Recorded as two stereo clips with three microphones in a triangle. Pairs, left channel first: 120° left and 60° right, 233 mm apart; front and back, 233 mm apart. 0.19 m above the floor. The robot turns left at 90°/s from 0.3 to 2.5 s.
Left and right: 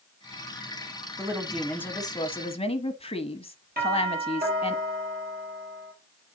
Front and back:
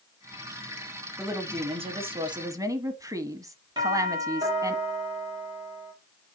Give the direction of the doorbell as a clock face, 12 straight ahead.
4 o'clock.